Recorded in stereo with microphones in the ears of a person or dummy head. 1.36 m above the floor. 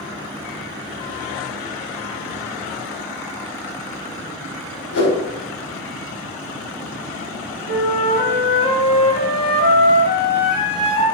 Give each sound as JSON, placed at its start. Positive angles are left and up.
{"t": 4.9, "sound": "a whoosh", "side_deg": 65, "distance_m": 4.0}
{"t": 7.7, "sound": "a flute", "side_deg": 75, "distance_m": 5.5}